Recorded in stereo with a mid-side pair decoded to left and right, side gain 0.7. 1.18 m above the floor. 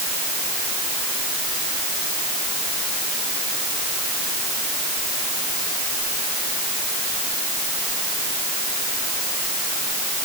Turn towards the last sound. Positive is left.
No sound to turn to.